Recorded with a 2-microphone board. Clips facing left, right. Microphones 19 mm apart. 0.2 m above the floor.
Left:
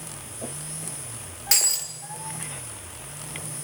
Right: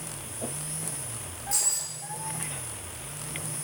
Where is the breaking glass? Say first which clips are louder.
Left 7 dB; 75° left (ahead or behind), 2.5 m.